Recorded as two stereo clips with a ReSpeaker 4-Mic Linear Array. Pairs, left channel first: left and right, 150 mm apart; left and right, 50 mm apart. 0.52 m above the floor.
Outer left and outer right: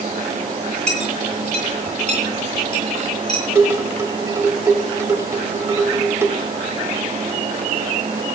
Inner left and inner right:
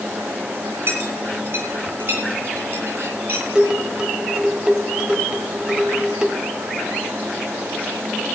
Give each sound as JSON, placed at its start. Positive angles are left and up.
{"t": 0.9, "sound": "a clink", "side_deg": -50, "distance_m": 9.5}
{"t": 3.5, "sound": "dishes clattering", "side_deg": -20, "distance_m": 1.4}